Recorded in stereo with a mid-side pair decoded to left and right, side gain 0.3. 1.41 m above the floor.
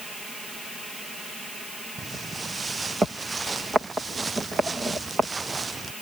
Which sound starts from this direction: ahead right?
Footsteps, at 2.0 s.